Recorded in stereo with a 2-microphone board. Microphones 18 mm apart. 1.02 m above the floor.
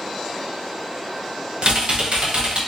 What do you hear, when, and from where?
1.6 s typing on a keyboard: 55° right (ahead or behind), 0.5 m